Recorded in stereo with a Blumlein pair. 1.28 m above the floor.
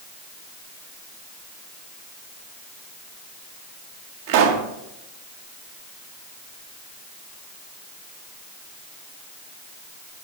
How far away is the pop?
About 1.6 m.